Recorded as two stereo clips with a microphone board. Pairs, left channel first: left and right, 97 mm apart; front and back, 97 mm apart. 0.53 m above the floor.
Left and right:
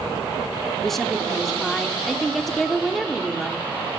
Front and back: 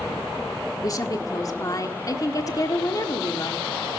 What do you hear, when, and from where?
0.8 s a woman speaking: 5° left, 1.4 m